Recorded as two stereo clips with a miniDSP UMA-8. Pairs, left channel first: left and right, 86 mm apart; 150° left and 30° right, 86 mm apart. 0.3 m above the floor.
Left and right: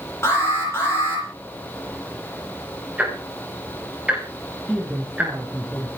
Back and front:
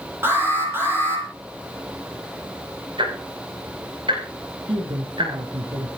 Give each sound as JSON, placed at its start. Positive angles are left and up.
{"t": 0.2, "sound": "an alarm", "azimuth_deg": 30, "distance_m": 10.0}
{"t": 3.0, "sound": "ticking", "azimuth_deg": -15, "distance_m": 7.0}
{"t": 4.7, "sound": "a man speaking", "azimuth_deg": -10, "distance_m": 4.0}